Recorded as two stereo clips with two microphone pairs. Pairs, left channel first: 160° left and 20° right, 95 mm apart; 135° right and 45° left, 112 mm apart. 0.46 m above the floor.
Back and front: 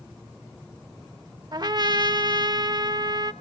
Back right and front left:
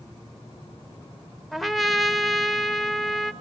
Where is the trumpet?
45° right, 1.1 m.